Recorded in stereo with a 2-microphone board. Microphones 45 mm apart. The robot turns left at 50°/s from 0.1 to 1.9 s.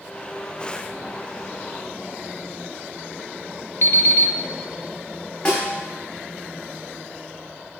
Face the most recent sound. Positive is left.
turn(degrees=30)  # may be behind; listen again after turning